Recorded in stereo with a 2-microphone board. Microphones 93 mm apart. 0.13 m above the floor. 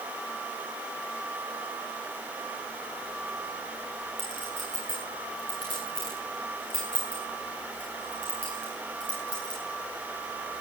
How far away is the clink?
About 7 m.